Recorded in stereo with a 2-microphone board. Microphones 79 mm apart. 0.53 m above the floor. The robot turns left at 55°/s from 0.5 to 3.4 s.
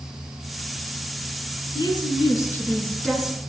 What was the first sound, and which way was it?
A woman speaking, 80° left.